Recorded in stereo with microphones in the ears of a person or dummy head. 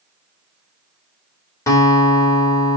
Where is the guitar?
15° left (ahead or behind), 3.5 m.